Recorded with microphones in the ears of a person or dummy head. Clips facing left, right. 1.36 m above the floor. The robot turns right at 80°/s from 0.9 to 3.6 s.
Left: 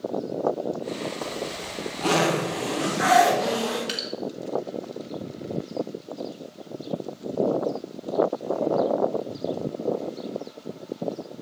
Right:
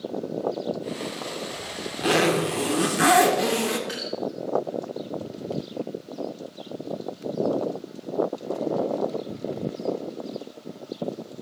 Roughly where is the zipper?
Behind left.